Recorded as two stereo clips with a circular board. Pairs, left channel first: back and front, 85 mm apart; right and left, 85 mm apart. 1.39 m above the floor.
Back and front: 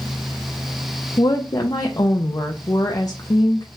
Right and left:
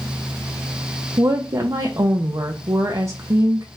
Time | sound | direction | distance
1.2 | a woman speaking | 135° left | 0.5 m